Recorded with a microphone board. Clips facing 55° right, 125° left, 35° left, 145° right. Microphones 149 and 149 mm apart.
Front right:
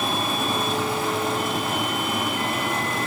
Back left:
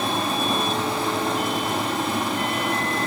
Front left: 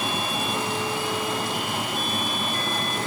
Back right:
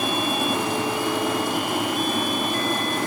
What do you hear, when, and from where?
0.0 s running water: straight behind, 4 m